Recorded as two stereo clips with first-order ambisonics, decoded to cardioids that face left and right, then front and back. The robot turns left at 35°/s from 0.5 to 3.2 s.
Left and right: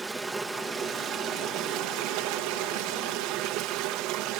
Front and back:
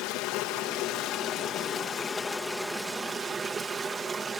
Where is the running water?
15° right, 0.7 m; by 4.4 s 110° right, 0.7 m.